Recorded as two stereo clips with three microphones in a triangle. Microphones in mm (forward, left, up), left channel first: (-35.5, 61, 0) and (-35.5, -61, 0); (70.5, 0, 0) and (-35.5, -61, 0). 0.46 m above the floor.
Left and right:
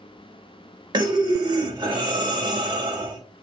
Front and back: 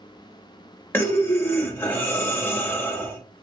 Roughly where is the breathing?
Ahead right.